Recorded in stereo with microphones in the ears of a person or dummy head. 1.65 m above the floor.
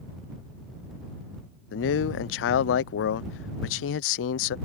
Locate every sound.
1.7 s a man speaking: 70° left (ahead or behind)